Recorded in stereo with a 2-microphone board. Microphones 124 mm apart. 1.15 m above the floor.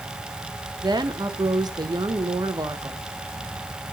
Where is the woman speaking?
35° right (ahead or behind), 0.9 m.